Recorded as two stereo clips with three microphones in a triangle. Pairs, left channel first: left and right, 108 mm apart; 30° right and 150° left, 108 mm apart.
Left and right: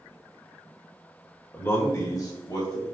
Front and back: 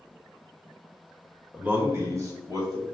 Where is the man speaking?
95° left, 0.8 m; by 2.9 s 120° left, 1.4 m.